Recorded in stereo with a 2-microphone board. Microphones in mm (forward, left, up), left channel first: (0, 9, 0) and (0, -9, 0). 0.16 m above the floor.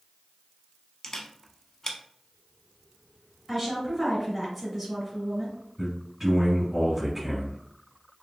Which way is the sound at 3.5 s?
10° right (ahead or behind).